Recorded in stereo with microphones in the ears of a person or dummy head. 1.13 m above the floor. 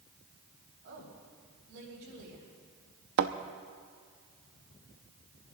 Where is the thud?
60° right (ahead or behind), 0.8 m.